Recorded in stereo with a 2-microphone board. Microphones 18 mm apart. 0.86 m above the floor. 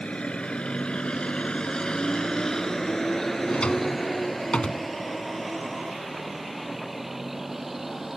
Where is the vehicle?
80° left; by 8.2 s 15° right (ahead or behind).